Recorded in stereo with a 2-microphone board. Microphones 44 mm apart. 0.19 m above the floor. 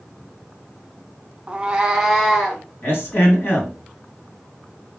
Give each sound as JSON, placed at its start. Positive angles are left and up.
{"t": 1.5, "sound": "a cat meowing", "side_deg": -25, "distance_m": 0.7}
{"t": 2.8, "sound": "a man speaking", "side_deg": 50, "distance_m": 2.0}